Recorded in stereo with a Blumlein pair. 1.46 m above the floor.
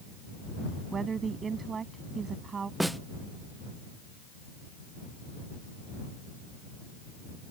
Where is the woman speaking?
20° right.